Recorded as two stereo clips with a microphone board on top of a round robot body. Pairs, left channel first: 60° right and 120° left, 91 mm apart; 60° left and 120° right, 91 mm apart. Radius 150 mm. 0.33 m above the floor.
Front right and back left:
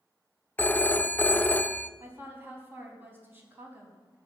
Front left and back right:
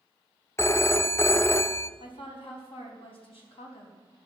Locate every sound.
0.6 s a phone ringing: 5° left, 0.8 m
2.0 s a woman speaking: 55° left, 4 m